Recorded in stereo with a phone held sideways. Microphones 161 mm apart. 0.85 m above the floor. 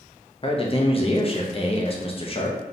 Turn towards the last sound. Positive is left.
turn(degrees=40)  # may be behind; listen again after turning